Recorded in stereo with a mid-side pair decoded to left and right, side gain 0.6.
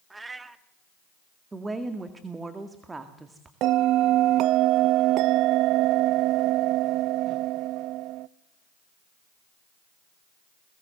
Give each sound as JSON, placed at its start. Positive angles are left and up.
{"t": 0.1, "sound": "a cat meowing", "azimuth_deg": -15, "distance_m": 1.3}
{"t": 1.5, "sound": "a woman speaking", "azimuth_deg": -20, "distance_m": 2.0}
{"t": 3.6, "sound": "a bell", "azimuth_deg": -65, "distance_m": 0.5}